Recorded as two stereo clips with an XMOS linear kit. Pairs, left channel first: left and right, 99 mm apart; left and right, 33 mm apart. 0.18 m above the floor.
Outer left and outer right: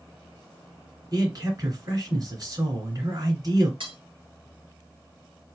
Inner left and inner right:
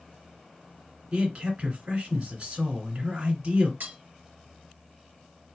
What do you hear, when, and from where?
1.1 s a man speaking: 40° right (ahead or behind), 2 m
3.8 s cutlery clinking: 55° right (ahead or behind), 1.8 m